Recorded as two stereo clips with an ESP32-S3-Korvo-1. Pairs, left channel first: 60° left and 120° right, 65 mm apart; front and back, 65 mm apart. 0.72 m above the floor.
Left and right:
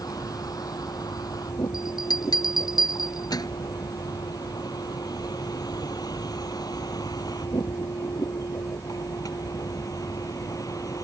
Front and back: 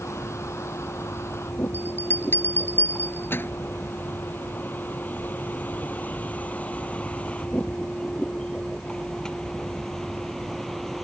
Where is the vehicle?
45° left; by 11.1 s 85° left.